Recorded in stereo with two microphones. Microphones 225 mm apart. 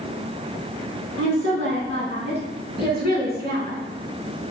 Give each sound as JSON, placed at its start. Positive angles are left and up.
{"t": 1.2, "sound": "a woman speaking", "side_deg": -70, "distance_m": 4.0}